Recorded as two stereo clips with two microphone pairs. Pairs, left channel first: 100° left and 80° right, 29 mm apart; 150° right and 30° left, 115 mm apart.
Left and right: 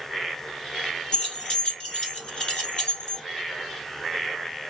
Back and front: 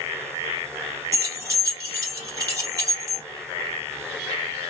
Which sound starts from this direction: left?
Keys jangling, at 1.1 s.